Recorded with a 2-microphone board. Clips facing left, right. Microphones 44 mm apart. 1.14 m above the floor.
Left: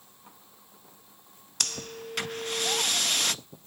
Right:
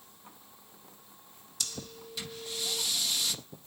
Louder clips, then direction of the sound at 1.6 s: Left 6 dB; 60° left (ahead or behind).